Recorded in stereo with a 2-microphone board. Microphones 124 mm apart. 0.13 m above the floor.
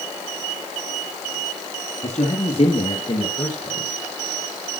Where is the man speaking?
50° left (ahead or behind), 2 m; by 3.9 s 25° left (ahead or behind), 2.5 m.